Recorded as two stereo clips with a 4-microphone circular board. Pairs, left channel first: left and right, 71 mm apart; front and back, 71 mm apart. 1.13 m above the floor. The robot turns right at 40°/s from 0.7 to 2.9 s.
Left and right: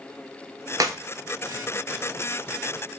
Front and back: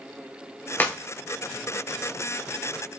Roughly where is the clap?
Ahead right.